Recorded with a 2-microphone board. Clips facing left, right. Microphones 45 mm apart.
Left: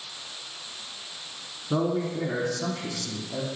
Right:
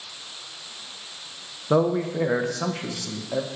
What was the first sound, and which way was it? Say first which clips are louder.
A man speaking: right 5 dB; 65° right (ahead or behind).